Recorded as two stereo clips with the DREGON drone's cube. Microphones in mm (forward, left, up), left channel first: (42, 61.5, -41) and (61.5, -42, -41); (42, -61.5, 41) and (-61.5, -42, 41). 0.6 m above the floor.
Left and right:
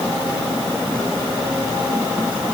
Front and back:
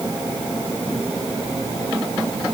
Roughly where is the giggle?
No giggle in this recording.